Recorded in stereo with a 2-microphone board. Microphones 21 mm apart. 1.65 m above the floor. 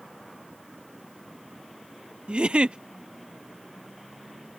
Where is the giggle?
55° right (ahead or behind).